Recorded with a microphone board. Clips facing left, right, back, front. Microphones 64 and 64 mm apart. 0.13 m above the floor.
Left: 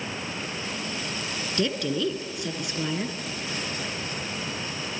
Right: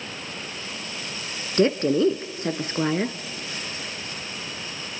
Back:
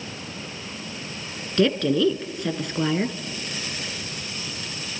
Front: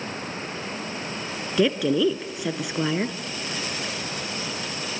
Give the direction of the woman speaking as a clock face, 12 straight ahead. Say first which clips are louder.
Right 8 dB, back 1 dB; 3 o'clock.